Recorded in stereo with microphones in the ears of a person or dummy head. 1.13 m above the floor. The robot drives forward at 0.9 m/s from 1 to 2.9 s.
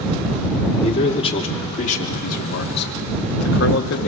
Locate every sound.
0.8 s a man speaking: 30° left (ahead or behind), 3 m; by 4.1 s 55° left (ahead or behind), 1.8 m